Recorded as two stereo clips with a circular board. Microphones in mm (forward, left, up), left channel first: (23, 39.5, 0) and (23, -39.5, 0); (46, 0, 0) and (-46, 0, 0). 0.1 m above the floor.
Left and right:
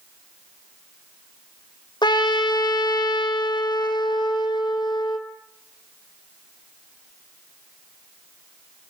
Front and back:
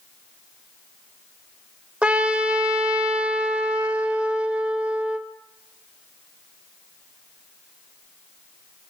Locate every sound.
2.0 s a trumpet: 105° left, 1.8 m